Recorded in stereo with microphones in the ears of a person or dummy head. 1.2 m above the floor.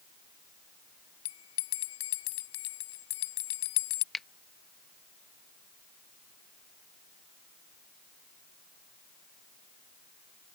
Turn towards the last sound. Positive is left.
turn(degrees=5)  # may be behind; listen again after turning